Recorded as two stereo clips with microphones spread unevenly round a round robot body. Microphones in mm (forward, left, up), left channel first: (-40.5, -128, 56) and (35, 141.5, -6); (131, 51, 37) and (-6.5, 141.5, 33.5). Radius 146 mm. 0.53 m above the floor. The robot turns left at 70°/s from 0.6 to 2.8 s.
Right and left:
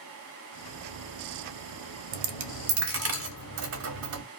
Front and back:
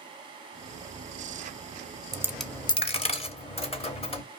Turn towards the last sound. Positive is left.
turn(degrees=25)